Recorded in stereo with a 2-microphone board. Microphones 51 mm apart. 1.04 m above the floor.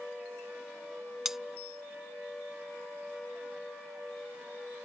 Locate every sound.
1.2 s cutlery clinking: 10° right (ahead or behind)